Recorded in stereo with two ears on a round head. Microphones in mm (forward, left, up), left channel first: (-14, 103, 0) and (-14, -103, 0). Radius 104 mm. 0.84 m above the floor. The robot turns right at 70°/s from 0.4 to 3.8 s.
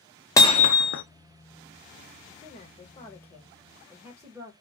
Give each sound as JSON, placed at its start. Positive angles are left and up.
{"t": 0.4, "sound": "hammering", "azimuth_deg": 15, "distance_m": 0.5}
{"t": 2.4, "sound": "a woman speaking", "azimuth_deg": 105, "distance_m": 0.8}